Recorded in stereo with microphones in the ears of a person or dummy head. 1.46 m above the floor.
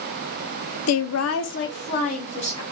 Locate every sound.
0.9 s a woman speaking: 70° left (ahead or behind), 0.6 m; by 2.6 s 30° left (ahead or behind), 1.3 m